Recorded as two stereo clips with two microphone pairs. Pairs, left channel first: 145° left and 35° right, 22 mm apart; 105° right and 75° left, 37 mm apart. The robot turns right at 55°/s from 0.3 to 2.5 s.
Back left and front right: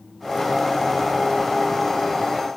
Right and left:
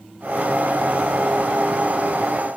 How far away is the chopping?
No chopping in this recording.